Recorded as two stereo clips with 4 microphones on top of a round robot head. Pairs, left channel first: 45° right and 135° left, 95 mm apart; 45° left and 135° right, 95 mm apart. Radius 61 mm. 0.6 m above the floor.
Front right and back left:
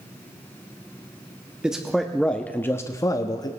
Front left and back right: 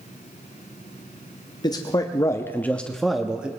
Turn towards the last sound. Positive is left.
turn(degrees=-60)